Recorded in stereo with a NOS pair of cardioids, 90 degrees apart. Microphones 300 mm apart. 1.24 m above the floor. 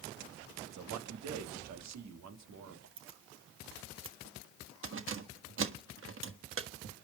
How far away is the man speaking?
About 2 m.